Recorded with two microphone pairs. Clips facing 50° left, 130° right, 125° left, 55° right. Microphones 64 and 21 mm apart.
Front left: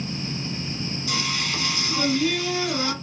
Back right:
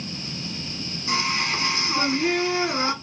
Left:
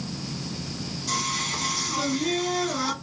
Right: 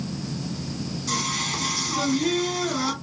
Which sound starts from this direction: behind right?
Singing, at 1.1 s.